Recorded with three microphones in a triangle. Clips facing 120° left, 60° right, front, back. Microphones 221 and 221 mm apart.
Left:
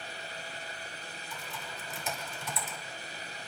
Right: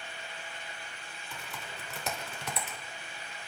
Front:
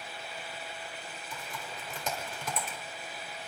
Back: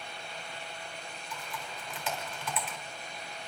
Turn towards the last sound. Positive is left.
turn(degrees=-45)